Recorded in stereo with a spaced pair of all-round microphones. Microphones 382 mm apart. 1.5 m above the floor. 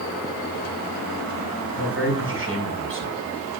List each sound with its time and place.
1.8 s a man speaking: 35° right (ahead or behind), 6.5 m